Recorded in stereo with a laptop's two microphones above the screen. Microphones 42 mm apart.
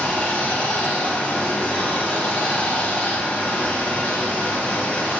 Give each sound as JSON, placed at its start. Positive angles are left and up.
{"t": 0.0, "sound": "running water", "side_deg": 35, "distance_m": 0.9}